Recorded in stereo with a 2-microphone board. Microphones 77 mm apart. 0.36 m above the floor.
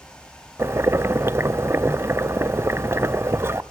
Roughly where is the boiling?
Right.